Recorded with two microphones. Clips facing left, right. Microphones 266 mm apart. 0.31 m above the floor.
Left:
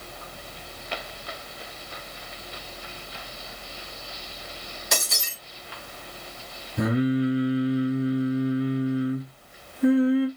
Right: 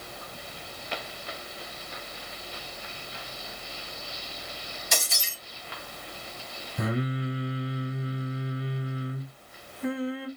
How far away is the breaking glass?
About 5 m.